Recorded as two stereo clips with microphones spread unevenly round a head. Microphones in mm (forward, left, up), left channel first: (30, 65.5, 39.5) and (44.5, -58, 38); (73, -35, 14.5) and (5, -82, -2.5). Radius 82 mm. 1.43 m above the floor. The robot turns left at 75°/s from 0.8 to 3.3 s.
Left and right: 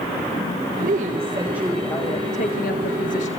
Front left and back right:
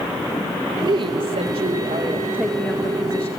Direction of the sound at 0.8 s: 110° right.